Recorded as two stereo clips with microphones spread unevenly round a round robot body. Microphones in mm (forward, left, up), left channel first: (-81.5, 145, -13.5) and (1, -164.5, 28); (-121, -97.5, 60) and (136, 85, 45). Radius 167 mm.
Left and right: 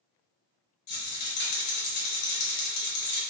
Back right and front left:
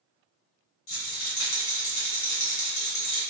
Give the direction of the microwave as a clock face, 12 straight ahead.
No microwave in this recording.